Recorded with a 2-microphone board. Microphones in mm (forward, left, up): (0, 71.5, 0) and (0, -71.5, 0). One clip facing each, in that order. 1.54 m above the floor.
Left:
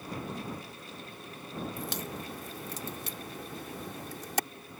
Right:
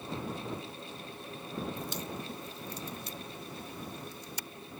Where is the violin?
I don't hear a violin.